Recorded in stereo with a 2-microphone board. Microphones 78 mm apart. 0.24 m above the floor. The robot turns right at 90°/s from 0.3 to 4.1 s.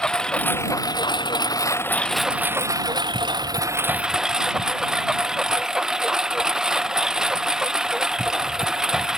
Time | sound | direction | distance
0.0 | a lawn mower | 10° left | ?